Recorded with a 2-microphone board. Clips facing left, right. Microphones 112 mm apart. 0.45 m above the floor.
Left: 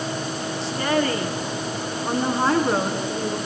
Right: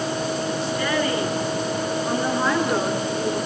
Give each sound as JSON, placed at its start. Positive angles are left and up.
{"t": 0.6, "sound": "a woman speaking", "side_deg": 30, "distance_m": 5.0}